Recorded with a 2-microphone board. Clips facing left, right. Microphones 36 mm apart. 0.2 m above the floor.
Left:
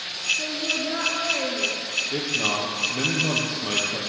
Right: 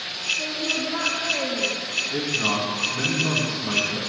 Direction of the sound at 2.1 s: 70° left (ahead or behind).